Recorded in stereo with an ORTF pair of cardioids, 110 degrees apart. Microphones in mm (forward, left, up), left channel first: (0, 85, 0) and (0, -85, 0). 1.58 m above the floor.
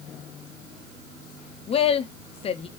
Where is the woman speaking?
35° left, 0.5 m.